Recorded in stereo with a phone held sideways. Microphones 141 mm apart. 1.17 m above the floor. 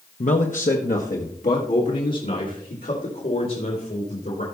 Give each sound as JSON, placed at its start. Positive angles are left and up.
{"t": 0.2, "sound": "a man speaking", "side_deg": 55, "distance_m": 0.8}